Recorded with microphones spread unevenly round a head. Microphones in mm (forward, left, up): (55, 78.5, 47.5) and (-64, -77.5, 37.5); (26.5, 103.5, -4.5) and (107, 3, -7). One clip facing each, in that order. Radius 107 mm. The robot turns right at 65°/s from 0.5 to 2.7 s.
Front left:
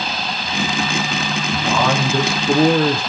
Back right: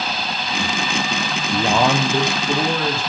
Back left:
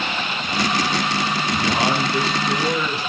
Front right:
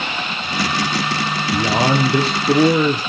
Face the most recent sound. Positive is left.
turn(degrees=-5)